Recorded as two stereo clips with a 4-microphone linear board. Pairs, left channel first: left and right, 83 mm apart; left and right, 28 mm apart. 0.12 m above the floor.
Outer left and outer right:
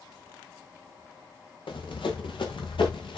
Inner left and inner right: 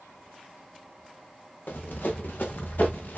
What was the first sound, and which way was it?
Running footsteps, 90° left.